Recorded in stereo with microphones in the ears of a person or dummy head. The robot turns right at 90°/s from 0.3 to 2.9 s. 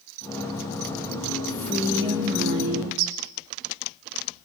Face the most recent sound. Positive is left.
turn(degrees=-80)